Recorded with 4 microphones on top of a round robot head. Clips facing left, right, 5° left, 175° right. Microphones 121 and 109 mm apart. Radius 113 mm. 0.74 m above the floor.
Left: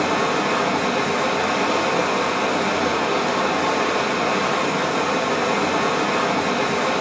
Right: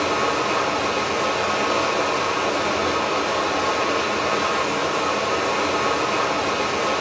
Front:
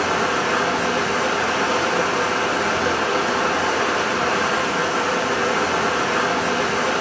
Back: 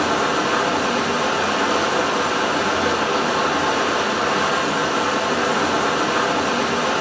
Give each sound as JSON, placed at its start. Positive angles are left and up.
{"t": 0.0, "sound": "running water", "azimuth_deg": 110, "distance_m": 1.2}